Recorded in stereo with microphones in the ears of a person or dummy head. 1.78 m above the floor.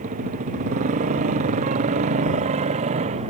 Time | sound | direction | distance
0.0 | a motorcycle | 40° right (ahead or behind) | ?